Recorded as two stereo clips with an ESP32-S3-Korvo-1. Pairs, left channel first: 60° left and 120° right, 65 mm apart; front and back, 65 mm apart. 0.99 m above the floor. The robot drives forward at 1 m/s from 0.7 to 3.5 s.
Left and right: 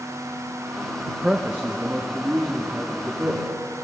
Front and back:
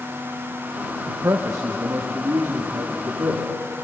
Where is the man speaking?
155° left, 0.5 m; by 3.5 s 175° left, 2.5 m.